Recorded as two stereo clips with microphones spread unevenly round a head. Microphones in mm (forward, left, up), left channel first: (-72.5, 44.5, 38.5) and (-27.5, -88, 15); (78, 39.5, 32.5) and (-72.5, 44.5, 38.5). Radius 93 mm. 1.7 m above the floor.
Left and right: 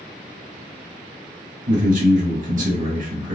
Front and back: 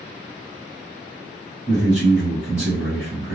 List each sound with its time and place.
1.7 s a man speaking: 110° right, 1.2 m